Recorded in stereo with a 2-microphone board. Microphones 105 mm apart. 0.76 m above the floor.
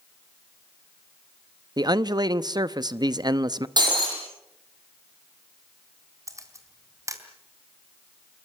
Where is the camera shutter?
30° right (ahead or behind), 3 m.